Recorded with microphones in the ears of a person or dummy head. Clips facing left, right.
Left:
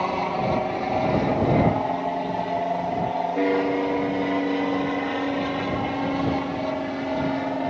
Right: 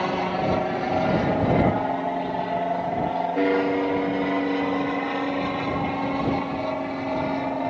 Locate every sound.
0.0 s an aircraft: 10° right (ahead or behind); by 7.7 s 10° left (ahead or behind)